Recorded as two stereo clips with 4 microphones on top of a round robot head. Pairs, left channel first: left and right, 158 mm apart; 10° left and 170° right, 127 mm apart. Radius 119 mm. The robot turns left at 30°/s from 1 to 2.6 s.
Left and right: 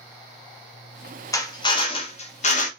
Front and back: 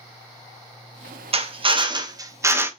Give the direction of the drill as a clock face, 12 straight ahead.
7 o'clock.